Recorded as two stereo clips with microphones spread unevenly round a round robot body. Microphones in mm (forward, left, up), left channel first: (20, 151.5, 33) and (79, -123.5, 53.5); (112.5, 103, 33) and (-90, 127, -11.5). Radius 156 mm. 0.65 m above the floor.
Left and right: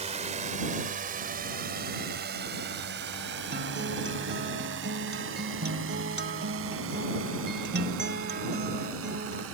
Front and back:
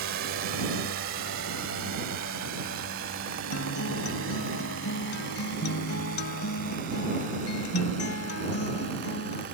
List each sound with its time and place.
0.0 s a drone: 145° right; by 9.6 s 125° right
3.5 s a guitar: 25° right